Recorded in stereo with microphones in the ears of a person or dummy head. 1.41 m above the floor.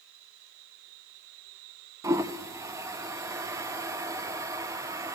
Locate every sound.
2.0 s a toilet flushing: 20° right (ahead or behind), 0.6 m